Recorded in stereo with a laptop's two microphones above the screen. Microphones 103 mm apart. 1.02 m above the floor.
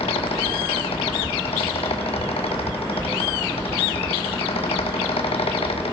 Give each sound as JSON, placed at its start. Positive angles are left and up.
{"t": 0.0, "sound": "a fan", "side_deg": 80, "distance_m": 0.9}